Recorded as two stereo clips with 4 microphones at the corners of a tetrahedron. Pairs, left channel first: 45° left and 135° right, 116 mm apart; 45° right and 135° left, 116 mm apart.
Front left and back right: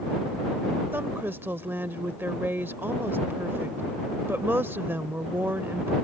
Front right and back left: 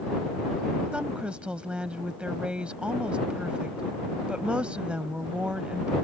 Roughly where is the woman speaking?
Behind.